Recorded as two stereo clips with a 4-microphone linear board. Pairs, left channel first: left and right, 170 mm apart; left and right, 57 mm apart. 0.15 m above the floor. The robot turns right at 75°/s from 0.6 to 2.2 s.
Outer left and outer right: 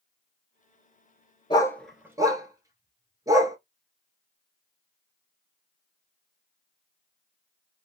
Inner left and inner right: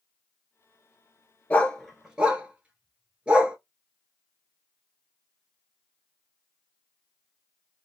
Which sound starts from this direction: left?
A dog barking, at 1.5 s.